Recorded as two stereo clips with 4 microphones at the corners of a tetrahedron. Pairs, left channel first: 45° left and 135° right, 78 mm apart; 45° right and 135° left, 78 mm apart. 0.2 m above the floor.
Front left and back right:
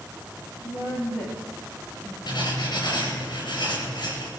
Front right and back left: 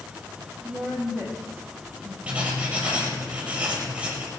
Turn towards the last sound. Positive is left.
turn(degrees=60)